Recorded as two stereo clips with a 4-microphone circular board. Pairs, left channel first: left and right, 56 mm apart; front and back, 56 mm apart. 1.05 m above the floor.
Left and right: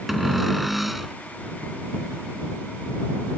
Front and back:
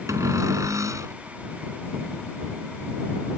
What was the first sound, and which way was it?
A cupboard door, straight behind.